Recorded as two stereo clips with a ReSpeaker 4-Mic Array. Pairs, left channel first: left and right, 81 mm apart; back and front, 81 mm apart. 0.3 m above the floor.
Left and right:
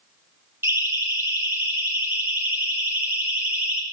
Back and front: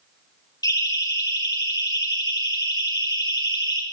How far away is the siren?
About 8 m.